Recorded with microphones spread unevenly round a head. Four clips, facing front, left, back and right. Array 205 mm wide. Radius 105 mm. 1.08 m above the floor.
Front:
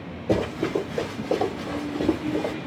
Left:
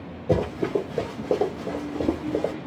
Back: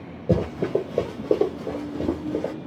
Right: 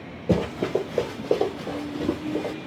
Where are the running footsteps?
160° right, 1.4 m; by 2.5 s 115° left, 1.8 m.